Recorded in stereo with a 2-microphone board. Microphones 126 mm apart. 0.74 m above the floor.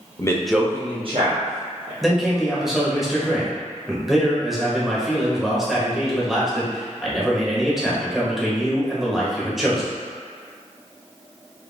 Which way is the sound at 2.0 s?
Centre (ahead or behind).